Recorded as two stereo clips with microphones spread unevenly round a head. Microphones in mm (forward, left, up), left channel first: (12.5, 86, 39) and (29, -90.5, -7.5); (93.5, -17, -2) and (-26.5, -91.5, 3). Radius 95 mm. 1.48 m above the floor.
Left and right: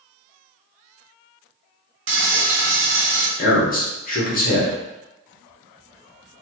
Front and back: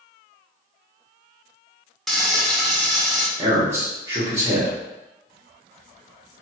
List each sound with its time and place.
2.1 s frying: 60° right, 0.8 m
3.4 s a man speaking: 135° left, 1.0 m